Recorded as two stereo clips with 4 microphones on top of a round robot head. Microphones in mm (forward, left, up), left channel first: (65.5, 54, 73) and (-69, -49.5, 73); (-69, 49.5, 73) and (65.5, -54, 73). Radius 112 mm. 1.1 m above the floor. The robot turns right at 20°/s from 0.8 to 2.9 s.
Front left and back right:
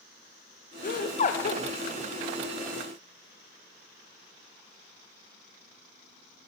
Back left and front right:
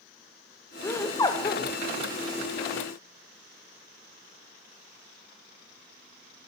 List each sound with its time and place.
0.8 s laughter: 65° left, 1.0 m; by 1.6 s 85° left, 1.0 m